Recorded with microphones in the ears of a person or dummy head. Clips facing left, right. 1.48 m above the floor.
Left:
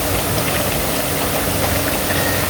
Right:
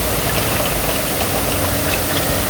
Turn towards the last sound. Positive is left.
No sound to turn to.